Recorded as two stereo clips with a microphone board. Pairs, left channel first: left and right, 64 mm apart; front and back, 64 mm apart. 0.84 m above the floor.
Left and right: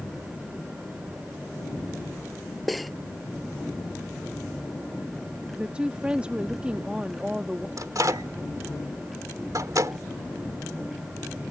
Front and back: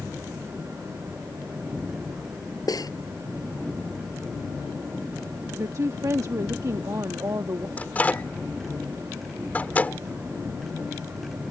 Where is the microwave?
65° right.